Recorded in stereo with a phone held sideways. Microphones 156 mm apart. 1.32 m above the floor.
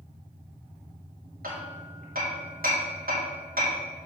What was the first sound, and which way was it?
Hammering, 85° right.